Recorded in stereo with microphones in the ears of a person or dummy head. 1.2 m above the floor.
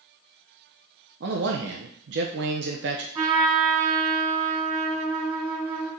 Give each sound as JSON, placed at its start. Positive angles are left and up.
{"t": 1.2, "sound": "a man speaking", "side_deg": -65, "distance_m": 0.6}
{"t": 3.1, "sound": "a trumpet", "side_deg": -25, "distance_m": 1.8}